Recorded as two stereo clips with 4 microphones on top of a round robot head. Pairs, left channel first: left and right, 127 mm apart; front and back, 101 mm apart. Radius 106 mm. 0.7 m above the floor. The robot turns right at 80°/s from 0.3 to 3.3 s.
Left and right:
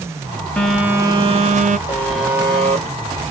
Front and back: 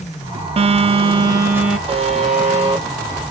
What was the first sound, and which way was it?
A phone buzzing, 170° left.